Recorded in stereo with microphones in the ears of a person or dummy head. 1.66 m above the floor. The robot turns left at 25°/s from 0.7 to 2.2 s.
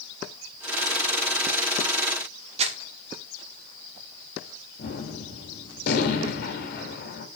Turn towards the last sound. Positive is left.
turn(degrees=60)  # may be behind; listen again after turning